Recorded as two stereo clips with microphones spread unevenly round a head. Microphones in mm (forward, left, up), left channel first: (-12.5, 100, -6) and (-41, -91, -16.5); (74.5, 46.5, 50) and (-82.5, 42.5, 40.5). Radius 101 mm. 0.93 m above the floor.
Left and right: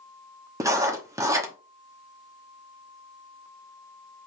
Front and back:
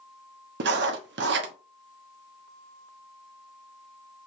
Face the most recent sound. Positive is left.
turn(degrees=-175)